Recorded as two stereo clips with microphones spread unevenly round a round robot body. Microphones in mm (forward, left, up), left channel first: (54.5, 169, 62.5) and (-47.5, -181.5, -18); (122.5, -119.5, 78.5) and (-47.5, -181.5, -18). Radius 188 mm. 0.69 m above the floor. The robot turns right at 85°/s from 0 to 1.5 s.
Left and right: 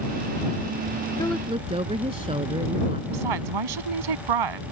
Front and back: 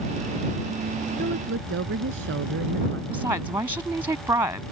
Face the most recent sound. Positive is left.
turn(degrees=-85)